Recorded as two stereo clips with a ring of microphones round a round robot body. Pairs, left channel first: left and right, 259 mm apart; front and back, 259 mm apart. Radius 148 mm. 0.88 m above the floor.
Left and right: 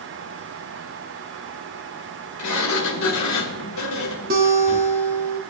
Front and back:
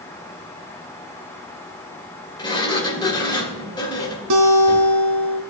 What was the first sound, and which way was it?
A sliding door, 75° left.